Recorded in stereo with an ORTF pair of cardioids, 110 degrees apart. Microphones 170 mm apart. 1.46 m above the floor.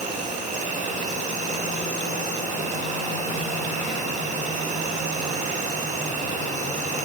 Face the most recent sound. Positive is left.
turn(degrees=-45)